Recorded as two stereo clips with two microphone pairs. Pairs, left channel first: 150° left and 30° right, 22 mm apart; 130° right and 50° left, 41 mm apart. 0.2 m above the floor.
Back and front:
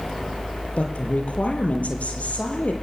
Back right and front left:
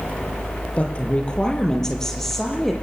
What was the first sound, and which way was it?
A woman speaking, 175° left.